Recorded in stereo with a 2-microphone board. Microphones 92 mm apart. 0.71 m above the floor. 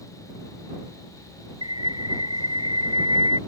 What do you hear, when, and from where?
1.6 s a bird: 60° right (ahead or behind)